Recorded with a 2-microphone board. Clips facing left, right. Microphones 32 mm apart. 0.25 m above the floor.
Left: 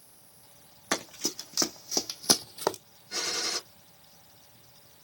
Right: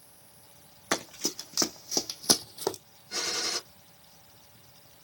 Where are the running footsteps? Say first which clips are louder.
Right 1 dB; 10° right (ahead or behind), 1.3 m; by 2.8 s 60° left (ahead or behind), 0.5 m.